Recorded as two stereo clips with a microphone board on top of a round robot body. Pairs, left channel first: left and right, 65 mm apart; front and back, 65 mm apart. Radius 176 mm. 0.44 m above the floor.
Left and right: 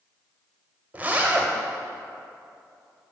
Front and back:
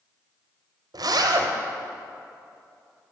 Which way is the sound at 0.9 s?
160° right.